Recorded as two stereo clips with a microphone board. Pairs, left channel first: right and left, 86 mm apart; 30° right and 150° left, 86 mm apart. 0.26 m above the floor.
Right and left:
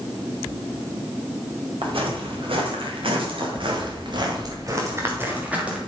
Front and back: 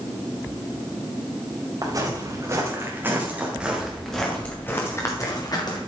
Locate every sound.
1.8 s footsteps: 100° left, 5 m; by 5.8 s 10° left, 3.5 m